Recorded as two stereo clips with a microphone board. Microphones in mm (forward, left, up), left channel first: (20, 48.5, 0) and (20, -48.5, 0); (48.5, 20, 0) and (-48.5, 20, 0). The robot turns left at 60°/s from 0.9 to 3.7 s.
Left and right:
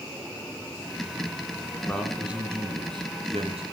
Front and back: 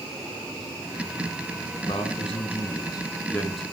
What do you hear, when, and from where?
1.9 s a man speaking: 15° left, 3 m; by 3.6 s 90° right, 3 m